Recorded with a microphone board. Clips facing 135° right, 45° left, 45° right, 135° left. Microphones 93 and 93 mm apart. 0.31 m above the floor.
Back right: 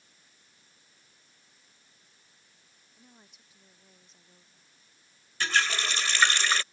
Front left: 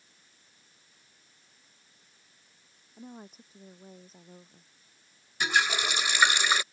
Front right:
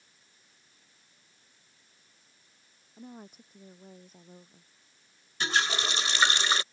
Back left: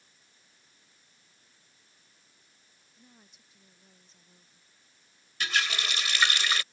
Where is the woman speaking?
5° right.